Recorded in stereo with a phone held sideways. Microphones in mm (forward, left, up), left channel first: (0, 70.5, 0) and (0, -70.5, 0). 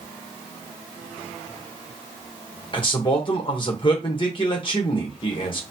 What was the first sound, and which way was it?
A man speaking, 35° left (ahead or behind).